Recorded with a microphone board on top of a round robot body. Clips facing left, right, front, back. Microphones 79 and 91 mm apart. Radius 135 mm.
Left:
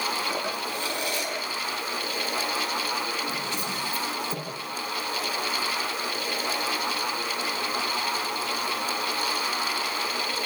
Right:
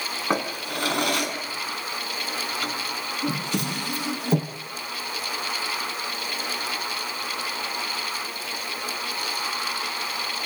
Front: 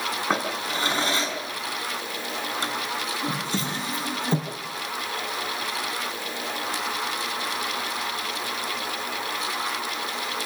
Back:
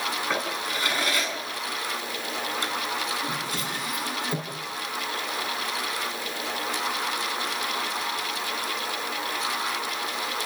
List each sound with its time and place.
0.3 s a drawer: 65° right, 5.5 m